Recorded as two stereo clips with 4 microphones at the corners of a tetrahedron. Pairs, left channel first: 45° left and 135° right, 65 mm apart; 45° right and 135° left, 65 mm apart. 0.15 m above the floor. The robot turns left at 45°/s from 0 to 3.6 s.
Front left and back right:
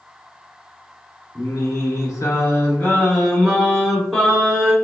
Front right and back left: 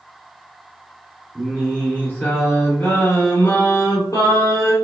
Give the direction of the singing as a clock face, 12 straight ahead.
10 o'clock.